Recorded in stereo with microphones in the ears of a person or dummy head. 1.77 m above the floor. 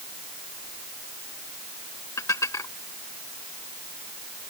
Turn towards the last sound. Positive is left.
turn(degrees=20)  # may be behind; listen again after turning